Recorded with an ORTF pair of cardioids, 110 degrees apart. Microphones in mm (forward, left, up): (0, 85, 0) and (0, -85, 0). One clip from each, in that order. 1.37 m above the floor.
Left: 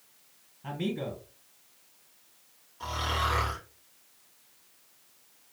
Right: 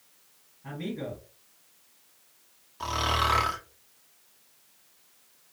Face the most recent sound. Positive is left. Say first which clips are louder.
# right 4 dB
turn(degrees=-40)